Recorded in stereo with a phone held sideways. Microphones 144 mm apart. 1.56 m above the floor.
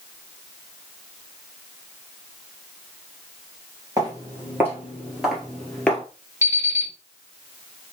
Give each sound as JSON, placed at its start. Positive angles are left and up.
{"t": 4.0, "sound": "footsteps", "side_deg": -25, "distance_m": 1.8}
{"t": 6.4, "sound": "an alarm clock", "side_deg": -20, "distance_m": 1.6}